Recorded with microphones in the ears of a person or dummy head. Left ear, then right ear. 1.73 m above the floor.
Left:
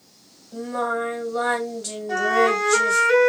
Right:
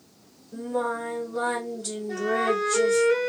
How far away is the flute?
About 1.2 m.